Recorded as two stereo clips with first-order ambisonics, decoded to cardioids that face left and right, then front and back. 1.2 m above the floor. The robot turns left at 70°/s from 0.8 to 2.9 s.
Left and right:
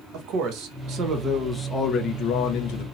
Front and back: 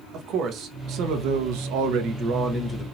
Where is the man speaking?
130° right, 1.1 m; by 2.9 s 90° left, 1.1 m.